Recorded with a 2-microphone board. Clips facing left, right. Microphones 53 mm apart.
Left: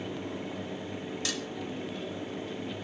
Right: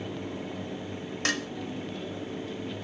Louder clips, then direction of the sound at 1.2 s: Right 9 dB; 50° right (ahead or behind).